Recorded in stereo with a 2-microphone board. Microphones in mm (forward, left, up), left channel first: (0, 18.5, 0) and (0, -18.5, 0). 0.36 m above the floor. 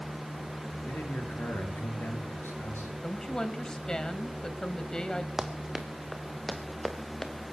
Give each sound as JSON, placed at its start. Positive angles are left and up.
{"t": 0.8, "sound": "a man speaking", "side_deg": 60, "distance_m": 7.5}
{"t": 3.0, "sound": "a woman speaking", "side_deg": 20, "distance_m": 2.0}
{"t": 5.4, "sound": "running footsteps", "side_deg": -15, "distance_m": 2.0}